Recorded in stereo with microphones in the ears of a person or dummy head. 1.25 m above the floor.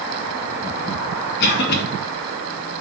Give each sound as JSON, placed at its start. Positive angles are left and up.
{"t": 1.4, "sound": "a cough", "side_deg": 65, "distance_m": 1.8}